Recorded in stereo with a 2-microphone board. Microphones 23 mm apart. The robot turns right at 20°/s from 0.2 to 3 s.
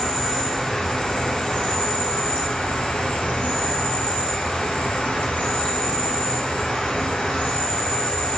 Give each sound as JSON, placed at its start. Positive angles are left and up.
{"t": 0.0, "sound": "an insect", "azimuth_deg": 20, "distance_m": 1.0}